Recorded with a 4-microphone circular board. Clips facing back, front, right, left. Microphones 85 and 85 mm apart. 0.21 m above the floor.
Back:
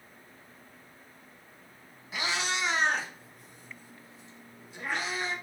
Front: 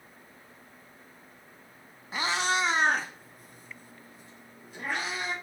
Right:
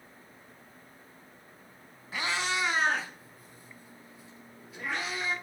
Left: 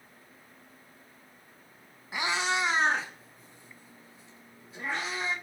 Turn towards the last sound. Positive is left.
turn(degrees=35)